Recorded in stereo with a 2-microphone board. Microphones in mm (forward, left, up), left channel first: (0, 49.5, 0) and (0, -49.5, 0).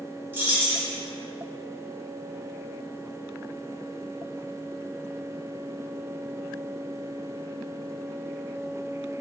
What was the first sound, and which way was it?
Keys jangling, 20° right (ahead or behind).